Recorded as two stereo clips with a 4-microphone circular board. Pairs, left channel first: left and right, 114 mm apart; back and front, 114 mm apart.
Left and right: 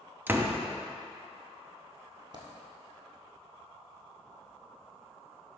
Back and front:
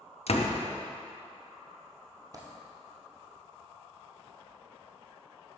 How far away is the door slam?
About 0.6 m.